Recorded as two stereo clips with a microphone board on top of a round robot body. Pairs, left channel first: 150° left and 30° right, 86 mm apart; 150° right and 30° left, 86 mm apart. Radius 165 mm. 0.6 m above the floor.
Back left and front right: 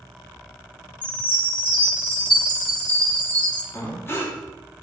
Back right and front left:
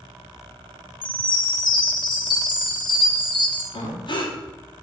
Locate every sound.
1.0 s a chime: 135° right, 2 m
3.7 s breathing: 150° right, 2 m